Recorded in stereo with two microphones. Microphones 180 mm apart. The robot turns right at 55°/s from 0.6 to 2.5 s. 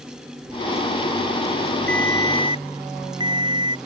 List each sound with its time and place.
1.9 s a ringtone: 60° right; by 3.8 s 25° right